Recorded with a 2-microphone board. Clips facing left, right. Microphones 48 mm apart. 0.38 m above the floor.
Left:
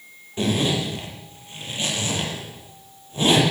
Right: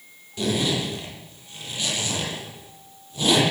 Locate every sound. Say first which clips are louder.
0.4 s a zipper: left 2 dB; 30° left (ahead or behind), 9.5 m